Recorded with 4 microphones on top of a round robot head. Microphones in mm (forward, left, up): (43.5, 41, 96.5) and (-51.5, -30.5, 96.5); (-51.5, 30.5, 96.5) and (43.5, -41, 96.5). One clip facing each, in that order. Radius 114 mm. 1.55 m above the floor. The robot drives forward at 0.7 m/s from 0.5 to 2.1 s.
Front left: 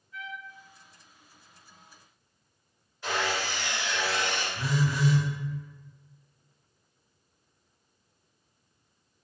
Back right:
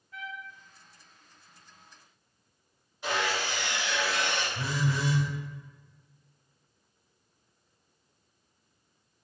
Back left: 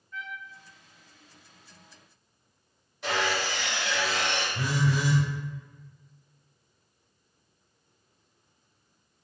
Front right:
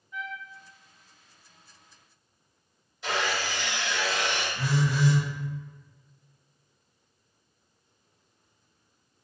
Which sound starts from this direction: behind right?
A trumpet, at 0.1 s.